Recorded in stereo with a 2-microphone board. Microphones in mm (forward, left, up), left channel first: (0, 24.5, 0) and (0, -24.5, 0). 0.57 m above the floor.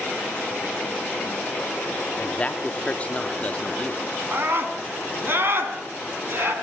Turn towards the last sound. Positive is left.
turn(degrees=-45)  # may be behind; listen again after turning